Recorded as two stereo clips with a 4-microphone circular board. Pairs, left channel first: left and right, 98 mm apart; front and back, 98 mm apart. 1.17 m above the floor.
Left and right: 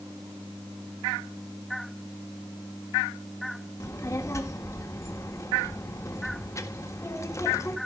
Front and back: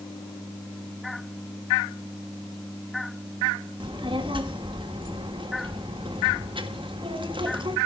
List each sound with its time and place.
3.8 s a child speaking: 150° left, 1.6 m